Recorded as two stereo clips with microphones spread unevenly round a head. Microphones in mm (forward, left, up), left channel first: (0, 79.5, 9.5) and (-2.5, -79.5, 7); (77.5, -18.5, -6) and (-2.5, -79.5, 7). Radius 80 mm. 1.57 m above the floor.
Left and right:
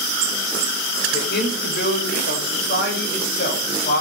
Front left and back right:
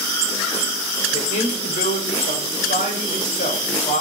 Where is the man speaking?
60° left, 6 m; by 4.0 s 55° left, 8 m.